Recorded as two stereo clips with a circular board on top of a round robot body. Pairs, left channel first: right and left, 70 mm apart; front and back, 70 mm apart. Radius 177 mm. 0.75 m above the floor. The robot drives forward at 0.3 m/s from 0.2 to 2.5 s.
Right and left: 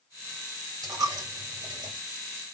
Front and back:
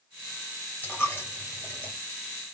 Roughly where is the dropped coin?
Ahead left.